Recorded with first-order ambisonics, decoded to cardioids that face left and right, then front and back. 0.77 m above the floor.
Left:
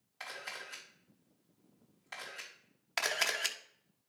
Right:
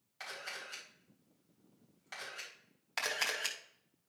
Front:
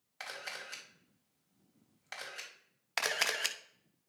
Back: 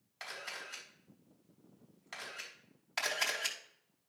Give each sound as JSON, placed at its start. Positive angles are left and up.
{"t": 0.2, "sound": "a camera shutter", "azimuth_deg": 0, "distance_m": 3.5}
{"t": 3.0, "sound": "a camera shutter", "azimuth_deg": 30, "distance_m": 0.8}